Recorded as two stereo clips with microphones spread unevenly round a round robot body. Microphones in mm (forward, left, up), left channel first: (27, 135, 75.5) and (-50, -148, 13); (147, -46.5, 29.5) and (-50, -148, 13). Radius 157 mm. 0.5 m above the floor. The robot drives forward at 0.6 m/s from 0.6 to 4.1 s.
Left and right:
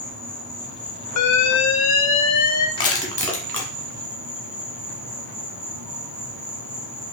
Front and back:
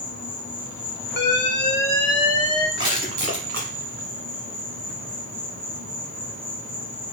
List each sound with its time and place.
0.0 s an insect: 30° right, 1.7 m; by 7.1 s 125° right, 1.1 m
1.2 s an alarm: 55° left, 0.8 m; by 2.7 s 145° left, 0.9 m
2.8 s crushing: 150° left, 1.0 m; by 3.7 s 160° left, 1.5 m